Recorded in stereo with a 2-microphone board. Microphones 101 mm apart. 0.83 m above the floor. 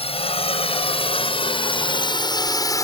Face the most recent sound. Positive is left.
turn(degrees=35)  # may be behind; listen again after turning